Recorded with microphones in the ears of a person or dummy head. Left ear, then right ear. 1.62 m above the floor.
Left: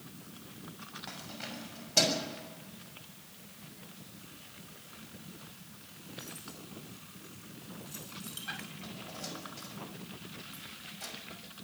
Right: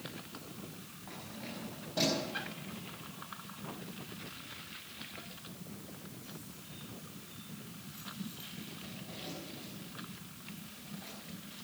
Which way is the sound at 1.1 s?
80° left.